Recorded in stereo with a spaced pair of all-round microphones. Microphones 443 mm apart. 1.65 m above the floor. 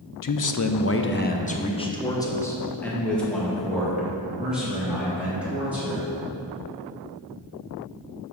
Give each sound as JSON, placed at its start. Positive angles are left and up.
{"t": 0.2, "sound": "a man speaking", "side_deg": 50, "distance_m": 0.5}